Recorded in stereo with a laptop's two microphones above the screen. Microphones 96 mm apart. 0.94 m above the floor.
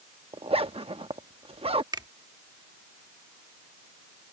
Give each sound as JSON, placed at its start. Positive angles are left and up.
{"t": 0.3, "sound": "a zipper", "side_deg": -80}
{"t": 1.9, "sound": "a finger snap", "side_deg": -45}